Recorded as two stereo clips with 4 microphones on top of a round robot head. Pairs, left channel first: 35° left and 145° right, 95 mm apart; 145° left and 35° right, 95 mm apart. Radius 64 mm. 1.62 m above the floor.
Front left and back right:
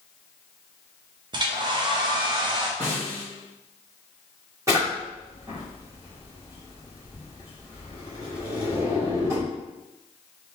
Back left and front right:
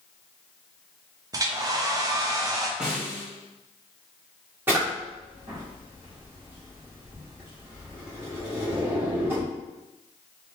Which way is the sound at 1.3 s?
95° right.